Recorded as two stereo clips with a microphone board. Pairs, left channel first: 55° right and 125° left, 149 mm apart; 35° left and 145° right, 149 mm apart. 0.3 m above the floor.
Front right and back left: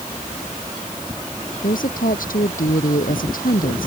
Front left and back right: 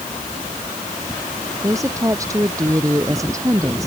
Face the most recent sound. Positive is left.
turn(degrees=-75)